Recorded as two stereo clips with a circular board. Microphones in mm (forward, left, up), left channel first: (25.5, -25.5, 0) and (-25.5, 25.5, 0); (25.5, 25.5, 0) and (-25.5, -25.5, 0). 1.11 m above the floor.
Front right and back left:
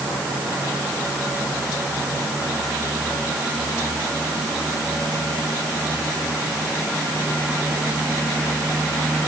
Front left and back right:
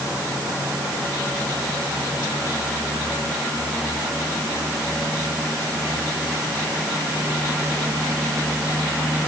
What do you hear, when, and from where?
Only background noise.